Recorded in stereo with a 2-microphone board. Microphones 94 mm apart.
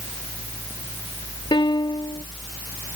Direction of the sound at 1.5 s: 65° left (ahead or behind).